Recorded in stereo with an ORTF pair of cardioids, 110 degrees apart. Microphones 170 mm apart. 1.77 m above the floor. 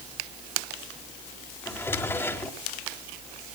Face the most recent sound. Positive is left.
turn(degrees=15)